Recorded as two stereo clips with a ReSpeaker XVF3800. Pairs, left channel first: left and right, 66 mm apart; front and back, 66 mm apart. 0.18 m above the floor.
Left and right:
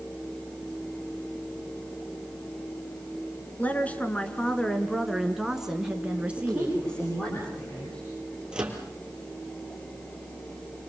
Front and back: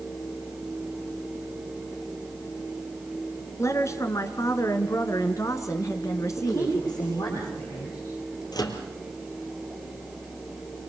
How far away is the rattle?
No rattle in this recording.